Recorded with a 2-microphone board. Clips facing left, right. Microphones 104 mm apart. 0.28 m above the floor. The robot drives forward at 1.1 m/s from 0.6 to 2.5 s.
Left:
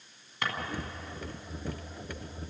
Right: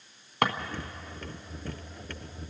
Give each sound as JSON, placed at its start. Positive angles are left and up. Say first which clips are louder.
{"t": 0.4, "sound": "a drawer", "louder": "right 8 dB", "side_deg": -60, "distance_m": 1.4}